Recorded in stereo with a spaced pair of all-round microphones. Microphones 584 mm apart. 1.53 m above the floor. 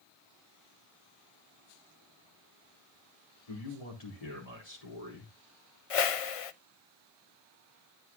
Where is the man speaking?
85° left, 4 m.